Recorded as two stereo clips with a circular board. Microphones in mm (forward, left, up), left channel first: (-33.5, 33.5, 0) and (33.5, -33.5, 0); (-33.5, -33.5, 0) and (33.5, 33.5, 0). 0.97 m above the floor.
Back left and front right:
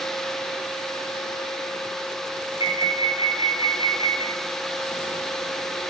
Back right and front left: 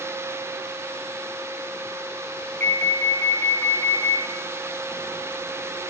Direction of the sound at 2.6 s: 155° left.